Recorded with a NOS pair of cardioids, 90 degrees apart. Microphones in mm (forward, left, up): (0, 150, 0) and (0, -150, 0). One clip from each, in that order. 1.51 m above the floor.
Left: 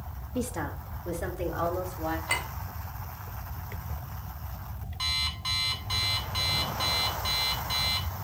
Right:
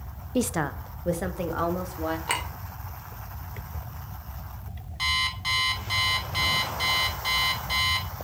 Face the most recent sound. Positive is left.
turn(degrees=-25)